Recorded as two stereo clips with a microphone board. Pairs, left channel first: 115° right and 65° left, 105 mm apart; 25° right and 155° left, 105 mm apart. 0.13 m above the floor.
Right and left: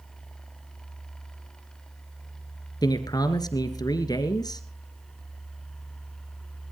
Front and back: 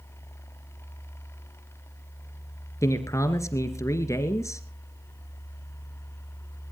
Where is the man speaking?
75° right, 2.5 m.